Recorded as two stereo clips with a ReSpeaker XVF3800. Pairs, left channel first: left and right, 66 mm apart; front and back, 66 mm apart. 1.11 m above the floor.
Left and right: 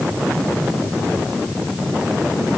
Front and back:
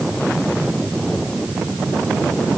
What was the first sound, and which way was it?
Only background noise.